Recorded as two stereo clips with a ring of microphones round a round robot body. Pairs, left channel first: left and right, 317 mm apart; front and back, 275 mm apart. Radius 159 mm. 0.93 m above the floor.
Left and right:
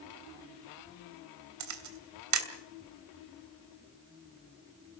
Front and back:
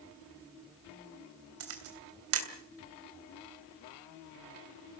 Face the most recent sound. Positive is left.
turn(degrees=-130)